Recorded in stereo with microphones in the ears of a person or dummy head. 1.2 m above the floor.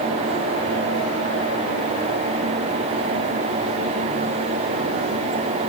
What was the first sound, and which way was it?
Only background noise.